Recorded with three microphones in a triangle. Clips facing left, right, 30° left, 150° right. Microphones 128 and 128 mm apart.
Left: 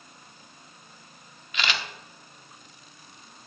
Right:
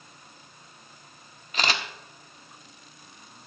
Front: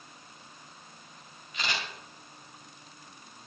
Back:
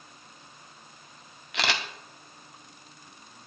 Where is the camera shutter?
140° right, 1.2 m.